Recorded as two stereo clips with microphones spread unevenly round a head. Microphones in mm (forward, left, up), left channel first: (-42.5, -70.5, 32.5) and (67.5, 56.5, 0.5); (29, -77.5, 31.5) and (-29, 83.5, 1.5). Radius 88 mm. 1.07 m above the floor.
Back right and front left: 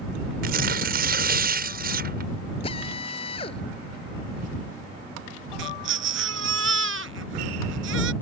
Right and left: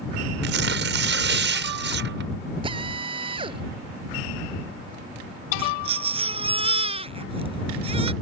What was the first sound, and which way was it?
Tearing paper, 90° left.